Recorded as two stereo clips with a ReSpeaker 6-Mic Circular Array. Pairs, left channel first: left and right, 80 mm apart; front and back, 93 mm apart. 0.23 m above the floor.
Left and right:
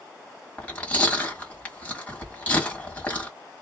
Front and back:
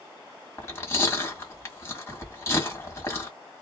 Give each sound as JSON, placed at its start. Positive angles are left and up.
{"t": 0.6, "sound": "chewing", "azimuth_deg": 30, "distance_m": 1.4}